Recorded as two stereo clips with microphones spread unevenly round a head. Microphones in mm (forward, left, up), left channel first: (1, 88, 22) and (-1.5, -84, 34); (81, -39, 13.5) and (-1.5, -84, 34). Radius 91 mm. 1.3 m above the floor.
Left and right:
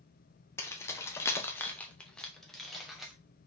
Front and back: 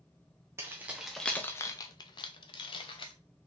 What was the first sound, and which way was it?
Keys jangling, 165° left.